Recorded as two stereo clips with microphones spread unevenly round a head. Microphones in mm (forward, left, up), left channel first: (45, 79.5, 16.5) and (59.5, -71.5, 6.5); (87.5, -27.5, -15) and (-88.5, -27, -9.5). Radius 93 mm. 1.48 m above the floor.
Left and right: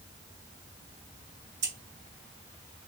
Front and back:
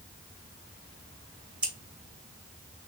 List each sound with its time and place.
1.6 s scissors: 95° right, 2 m